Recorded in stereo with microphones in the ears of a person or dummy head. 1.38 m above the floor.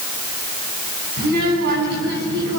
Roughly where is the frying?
No frying in this recording.